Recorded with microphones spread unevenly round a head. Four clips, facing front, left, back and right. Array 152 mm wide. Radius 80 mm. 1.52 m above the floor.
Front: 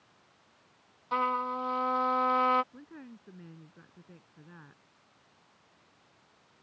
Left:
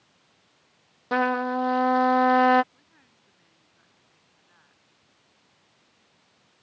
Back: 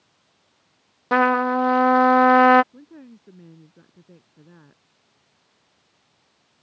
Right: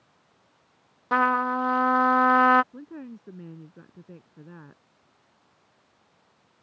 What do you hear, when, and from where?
1.1 s a trumpet: 170° left
2.7 s a woman speaking: 105° right